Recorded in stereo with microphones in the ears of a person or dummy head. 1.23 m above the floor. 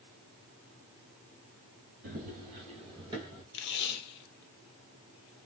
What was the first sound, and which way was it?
Running footsteps, 40° right (ahead or behind).